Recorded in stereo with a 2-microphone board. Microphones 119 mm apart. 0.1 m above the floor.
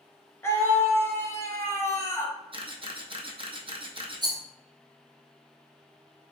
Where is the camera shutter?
50° right (ahead or behind), 0.6 m.